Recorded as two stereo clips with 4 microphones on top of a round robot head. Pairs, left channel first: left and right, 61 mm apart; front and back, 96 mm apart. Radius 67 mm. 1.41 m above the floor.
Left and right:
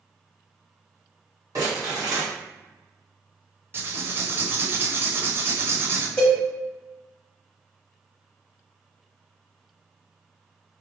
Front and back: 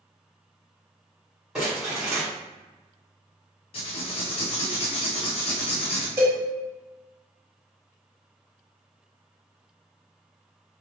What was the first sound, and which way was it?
Crumpling, 95° right.